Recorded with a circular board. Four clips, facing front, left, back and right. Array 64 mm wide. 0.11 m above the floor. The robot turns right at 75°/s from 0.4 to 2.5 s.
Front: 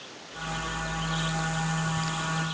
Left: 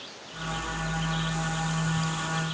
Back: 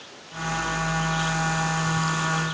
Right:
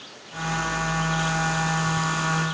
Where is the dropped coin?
No dropped coin in this recording.